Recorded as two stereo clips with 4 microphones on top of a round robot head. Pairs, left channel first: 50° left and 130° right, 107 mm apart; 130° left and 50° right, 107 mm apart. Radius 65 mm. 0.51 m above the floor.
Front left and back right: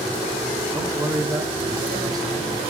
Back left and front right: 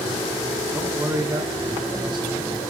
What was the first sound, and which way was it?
A man speaking, 90° right.